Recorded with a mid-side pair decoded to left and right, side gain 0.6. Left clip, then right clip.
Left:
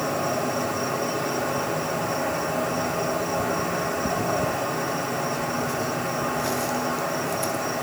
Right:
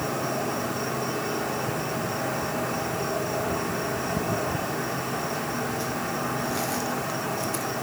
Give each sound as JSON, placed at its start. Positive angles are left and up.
{"t": 0.0, "sound": "an insect", "azimuth_deg": 15, "distance_m": 3.0}